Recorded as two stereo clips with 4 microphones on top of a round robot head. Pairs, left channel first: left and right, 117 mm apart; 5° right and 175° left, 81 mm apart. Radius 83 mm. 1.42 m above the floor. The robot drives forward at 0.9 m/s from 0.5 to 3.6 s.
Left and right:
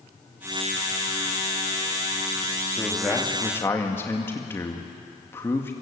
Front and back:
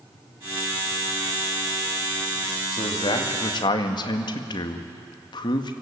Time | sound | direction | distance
2.7 | a man speaking | 10° left | 2.5 m